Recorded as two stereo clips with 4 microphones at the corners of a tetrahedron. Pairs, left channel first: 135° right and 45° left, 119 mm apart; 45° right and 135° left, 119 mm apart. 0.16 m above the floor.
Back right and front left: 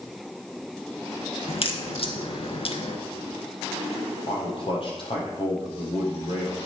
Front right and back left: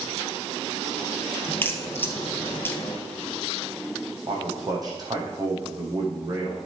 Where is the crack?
115° right, 1.7 m.